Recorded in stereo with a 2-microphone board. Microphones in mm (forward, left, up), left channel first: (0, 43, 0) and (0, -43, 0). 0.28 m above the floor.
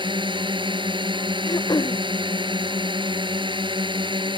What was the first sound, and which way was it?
A drone, 70° right (ahead or behind).